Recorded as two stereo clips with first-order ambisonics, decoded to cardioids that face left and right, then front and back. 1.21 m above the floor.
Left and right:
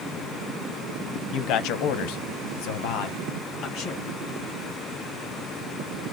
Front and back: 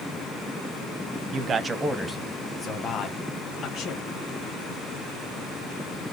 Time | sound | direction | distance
1.3 | a man speaking | 130° left | 0.7 m